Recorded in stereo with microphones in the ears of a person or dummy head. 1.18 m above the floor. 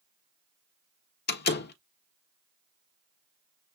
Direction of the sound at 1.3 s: 65° left (ahead or behind).